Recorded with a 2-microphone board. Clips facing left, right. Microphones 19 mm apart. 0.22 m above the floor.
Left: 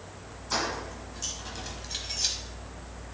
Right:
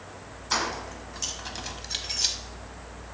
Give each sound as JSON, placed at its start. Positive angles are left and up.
{"t": 0.5, "sound": "keys jangling", "side_deg": -35, "distance_m": 1.1}